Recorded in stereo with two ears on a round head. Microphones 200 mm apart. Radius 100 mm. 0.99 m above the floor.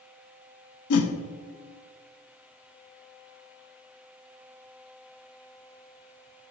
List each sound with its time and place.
0.9 s a whoosh: 75° left (ahead or behind), 0.9 m